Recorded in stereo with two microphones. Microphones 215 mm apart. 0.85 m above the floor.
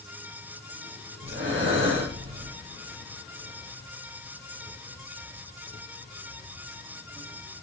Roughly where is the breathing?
Right.